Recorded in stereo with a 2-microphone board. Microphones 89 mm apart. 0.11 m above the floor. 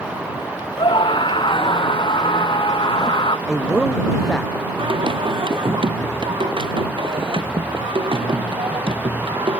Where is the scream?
65° left (ahead or behind).